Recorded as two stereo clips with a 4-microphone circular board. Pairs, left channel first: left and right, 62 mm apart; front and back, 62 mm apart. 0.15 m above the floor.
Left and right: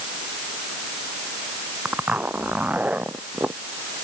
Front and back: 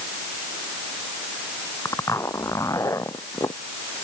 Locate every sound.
1.9 s a zipper: 25° right